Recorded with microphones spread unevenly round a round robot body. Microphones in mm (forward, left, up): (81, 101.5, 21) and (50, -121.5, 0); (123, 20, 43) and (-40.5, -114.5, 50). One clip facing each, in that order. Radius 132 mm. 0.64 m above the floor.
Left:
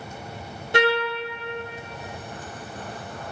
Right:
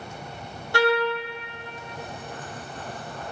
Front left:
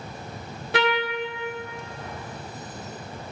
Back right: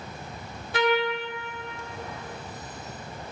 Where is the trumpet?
10° left, 0.7 m.